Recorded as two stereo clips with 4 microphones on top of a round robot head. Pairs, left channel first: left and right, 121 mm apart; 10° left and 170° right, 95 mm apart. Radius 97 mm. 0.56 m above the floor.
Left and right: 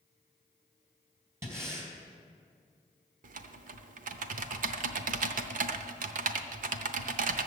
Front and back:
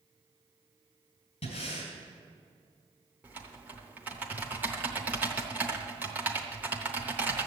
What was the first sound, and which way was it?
Breathing, 20° right.